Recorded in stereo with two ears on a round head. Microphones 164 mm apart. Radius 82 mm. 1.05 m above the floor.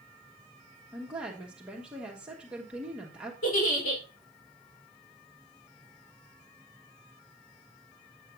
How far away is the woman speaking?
About 1.0 m.